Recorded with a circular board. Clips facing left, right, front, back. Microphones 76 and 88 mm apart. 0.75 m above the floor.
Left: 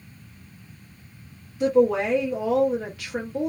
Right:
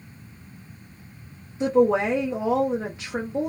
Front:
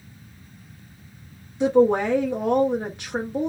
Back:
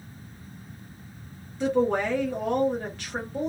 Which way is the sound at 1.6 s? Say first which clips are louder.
Even, front 6 dB; 55° right.